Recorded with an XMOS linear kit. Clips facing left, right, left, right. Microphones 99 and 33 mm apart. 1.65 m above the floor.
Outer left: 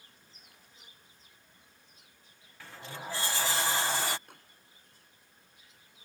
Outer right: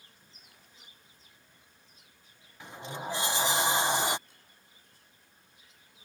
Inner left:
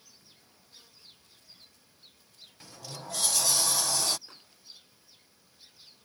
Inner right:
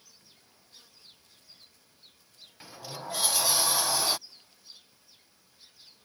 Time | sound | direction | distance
2.6 | a sliding door | 20° right (ahead or behind) | ?
4.3 | a microwave | 60° left (ahead or behind) | ?